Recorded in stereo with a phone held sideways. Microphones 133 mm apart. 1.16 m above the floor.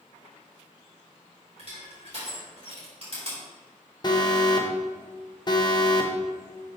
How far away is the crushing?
About 3.5 m.